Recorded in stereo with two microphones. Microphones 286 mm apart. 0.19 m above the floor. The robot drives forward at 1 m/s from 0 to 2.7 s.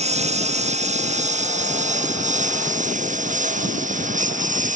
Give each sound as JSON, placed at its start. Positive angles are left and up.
{"t": 0.0, "sound": "a lawn mower", "side_deg": -25}